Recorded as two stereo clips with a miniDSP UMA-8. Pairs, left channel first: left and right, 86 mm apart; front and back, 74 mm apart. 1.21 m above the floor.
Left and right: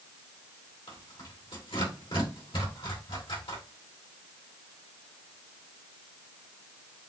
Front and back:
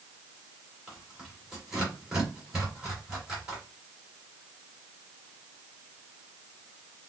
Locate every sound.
0.9 s tearing paper: 100° left, 2 m